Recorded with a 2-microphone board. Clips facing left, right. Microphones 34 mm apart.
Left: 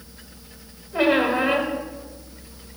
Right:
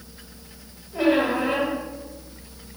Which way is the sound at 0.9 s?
45° left (ahead or behind).